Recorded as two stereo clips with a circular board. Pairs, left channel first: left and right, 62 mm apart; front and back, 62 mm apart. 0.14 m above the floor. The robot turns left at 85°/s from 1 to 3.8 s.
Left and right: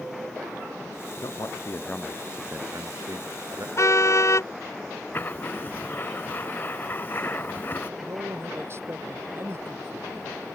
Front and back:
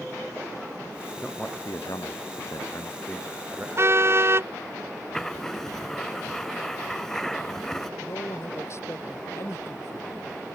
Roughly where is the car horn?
Behind left.